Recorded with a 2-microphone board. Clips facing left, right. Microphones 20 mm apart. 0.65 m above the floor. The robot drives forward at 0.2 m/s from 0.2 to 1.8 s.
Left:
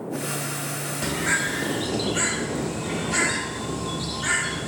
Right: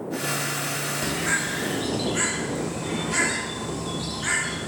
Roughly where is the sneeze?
I don't hear a sneeze.